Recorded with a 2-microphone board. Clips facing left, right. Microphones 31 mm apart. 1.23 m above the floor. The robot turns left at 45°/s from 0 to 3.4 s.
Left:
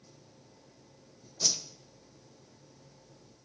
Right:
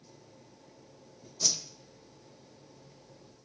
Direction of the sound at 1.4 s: 10° left (ahead or behind).